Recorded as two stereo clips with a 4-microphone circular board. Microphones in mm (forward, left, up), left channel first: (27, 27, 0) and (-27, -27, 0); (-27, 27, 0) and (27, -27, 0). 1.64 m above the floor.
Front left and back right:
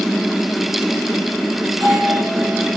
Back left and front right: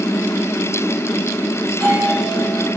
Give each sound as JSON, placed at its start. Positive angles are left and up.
{"t": 1.7, "sound": "a doorbell", "azimuth_deg": -155, "distance_m": 9.0}